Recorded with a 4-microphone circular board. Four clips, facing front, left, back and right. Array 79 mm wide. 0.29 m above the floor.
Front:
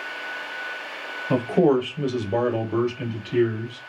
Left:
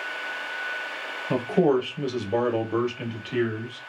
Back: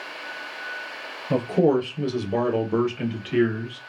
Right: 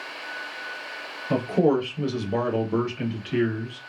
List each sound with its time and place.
1.3 s a man speaking: 5° left, 1.1 m; by 3.9 s 175° left, 1.1 m